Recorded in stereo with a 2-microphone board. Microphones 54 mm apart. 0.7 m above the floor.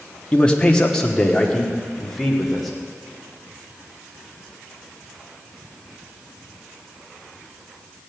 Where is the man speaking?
20° left (ahead or behind), 1.1 m; by 2.7 s 5° left (ahead or behind), 2.5 m.